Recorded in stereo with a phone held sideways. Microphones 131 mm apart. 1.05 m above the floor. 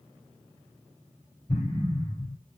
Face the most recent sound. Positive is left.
turn(degrees=55)  # may be behind; listen again after turning